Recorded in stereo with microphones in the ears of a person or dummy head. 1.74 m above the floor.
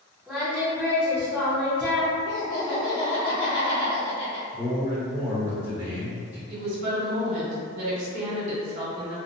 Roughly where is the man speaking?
Centre.